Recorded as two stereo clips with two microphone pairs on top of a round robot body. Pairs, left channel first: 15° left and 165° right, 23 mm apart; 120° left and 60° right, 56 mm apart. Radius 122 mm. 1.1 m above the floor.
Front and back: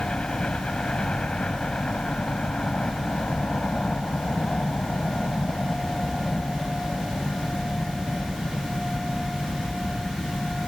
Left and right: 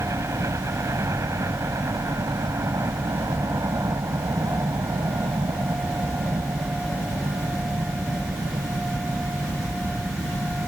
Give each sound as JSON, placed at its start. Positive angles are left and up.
{"t": 0.0, "sound": "a helicopter", "azimuth_deg": -30}